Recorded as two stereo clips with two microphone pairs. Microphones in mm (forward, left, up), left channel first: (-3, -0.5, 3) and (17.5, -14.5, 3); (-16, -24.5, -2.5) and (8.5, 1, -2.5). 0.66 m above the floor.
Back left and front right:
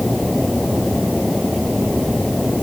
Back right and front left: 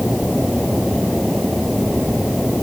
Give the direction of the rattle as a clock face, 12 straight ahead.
No rattle in this recording.